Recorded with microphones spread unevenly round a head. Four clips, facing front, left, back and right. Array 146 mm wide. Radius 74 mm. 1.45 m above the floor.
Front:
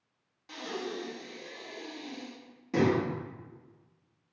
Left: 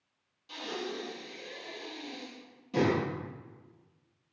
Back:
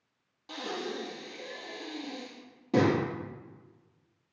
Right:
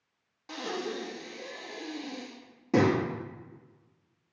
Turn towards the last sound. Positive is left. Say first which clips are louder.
# right 3 dB, back 1 dB
turn(degrees=-125)